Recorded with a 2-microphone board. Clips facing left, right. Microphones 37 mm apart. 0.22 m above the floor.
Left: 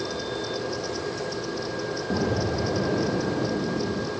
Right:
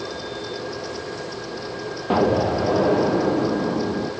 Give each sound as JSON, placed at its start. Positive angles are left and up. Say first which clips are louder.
{"t": 2.1, "sound": "an explosion", "louder": "right 9 dB", "side_deg": -80, "distance_m": 3.0}